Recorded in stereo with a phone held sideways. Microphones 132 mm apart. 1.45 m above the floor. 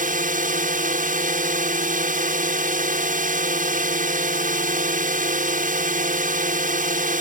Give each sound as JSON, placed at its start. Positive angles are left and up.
{"t": 0.0, "sound": "a drone", "side_deg": -80}